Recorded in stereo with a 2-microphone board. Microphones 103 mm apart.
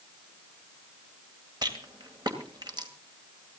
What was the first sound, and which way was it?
A rattle, 45° right (ahead or behind).